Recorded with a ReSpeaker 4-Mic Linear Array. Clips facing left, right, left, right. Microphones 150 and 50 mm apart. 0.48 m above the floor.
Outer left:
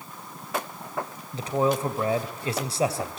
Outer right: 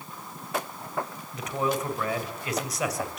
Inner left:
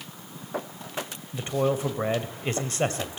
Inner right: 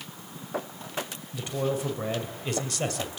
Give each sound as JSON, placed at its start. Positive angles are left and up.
{"t": 1.3, "sound": "a man speaking", "side_deg": 30, "distance_m": 2.5}